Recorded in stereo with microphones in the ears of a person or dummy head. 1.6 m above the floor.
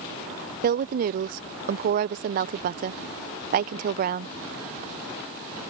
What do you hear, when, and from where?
0.6 s a woman speaking: 40° right (ahead or behind)